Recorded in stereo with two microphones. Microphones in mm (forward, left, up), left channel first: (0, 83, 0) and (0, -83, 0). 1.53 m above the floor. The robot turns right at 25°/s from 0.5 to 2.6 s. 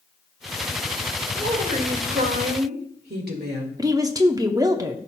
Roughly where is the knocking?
No knocking in this recording.